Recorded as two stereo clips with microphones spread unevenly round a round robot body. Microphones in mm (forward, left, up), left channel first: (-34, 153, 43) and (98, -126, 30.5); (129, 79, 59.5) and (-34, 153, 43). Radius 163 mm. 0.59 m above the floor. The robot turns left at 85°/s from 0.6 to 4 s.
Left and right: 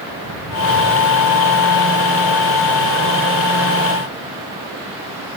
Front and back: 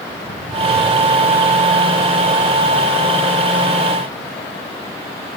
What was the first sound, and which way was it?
Footsteps, 110° right.